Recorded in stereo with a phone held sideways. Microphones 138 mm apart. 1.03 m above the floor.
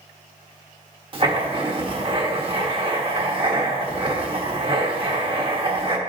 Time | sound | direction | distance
1.1 | writing | 35° right (ahead or behind) | 1.1 m